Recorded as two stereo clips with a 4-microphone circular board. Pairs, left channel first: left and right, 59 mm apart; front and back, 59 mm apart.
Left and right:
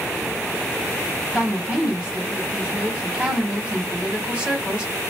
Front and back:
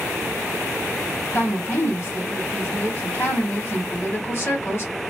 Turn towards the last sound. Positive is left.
turn(degrees=-20)